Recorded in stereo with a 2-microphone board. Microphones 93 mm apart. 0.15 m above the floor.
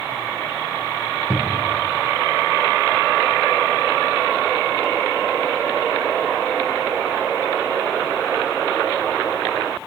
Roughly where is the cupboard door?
Centre.